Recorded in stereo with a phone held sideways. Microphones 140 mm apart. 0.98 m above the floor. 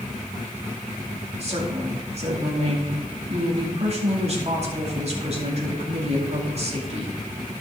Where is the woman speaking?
45° right (ahead or behind), 2.5 m.